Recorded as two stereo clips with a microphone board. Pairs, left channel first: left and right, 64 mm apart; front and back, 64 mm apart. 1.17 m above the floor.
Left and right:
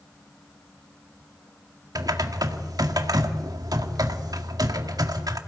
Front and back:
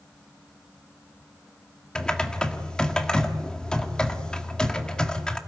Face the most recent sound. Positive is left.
turn(degrees=-75)